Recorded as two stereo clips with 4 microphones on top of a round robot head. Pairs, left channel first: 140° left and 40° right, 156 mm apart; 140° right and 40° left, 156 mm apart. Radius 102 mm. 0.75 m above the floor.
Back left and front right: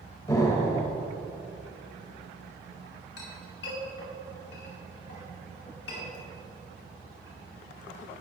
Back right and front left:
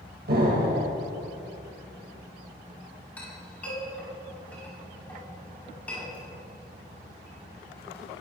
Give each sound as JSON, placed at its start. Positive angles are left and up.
{"t": 0.3, "sound": "an explosion", "azimuth_deg": 70, "distance_m": 2.5}
{"t": 3.2, "sound": "a clink", "azimuth_deg": 140, "distance_m": 4.5}